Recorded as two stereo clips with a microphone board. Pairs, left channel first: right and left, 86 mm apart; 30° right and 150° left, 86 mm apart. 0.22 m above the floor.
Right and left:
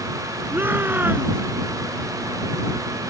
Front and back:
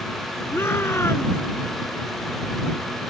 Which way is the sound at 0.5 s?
25° left.